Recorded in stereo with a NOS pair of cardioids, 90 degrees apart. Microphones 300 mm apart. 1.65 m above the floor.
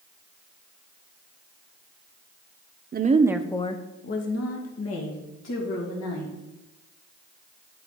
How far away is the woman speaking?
About 0.8 m.